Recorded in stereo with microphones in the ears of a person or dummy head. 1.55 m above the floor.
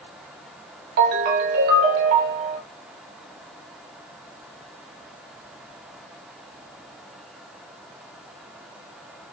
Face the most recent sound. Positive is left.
turn(degrees=-50)  # may be behind; listen again after turning